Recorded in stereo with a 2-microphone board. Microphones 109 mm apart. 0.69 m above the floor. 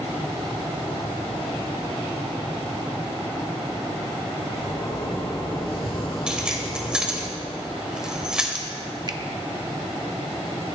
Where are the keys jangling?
10° right (ahead or behind), 1.8 m.